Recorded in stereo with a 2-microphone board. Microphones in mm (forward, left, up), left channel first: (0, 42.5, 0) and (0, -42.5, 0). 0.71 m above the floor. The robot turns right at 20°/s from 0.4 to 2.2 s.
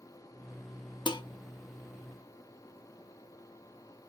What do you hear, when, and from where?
1.1 s dishes clattering: 65° left (ahead or behind), 0.7 m